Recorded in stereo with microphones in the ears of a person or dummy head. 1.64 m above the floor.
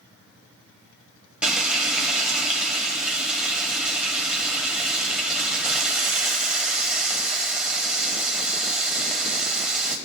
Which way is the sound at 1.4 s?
5° right (ahead or behind).